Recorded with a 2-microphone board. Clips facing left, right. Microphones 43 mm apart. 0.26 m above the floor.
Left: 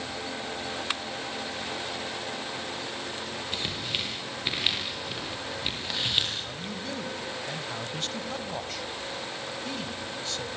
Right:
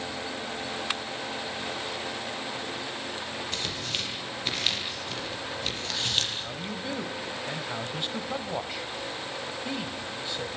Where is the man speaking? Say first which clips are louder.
Right 1 dB; 15° right (ahead or behind), 1.8 m.